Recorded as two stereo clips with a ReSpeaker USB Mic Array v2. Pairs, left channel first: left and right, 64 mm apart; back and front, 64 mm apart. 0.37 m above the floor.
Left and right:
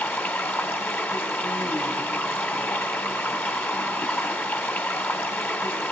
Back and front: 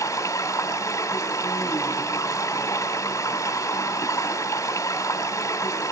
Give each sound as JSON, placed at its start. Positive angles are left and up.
{"t": 0.0, "sound": "running water", "azimuth_deg": 145, "distance_m": 2.5}